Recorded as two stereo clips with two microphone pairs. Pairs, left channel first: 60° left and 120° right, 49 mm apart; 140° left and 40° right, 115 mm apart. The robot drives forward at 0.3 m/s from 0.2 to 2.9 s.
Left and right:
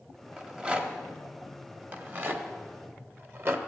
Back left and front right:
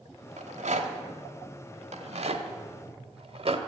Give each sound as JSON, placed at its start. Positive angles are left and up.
{"t": 0.4, "sound": "a rattle", "azimuth_deg": -50, "distance_m": 1.5}